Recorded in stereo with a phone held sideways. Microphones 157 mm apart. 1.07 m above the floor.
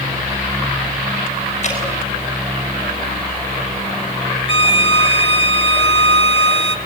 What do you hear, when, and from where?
1.6 s dripping: 45° left (ahead or behind), 7 m
4.5 s a violin: 35° left (ahead or behind), 1.2 m